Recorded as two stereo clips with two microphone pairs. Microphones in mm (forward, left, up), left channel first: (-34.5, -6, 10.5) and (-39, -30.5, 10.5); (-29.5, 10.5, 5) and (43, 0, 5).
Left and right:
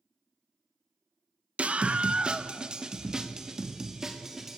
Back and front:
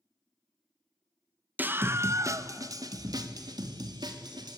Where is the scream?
75° right, 1.1 m; by 4.6 s 25° right, 3 m.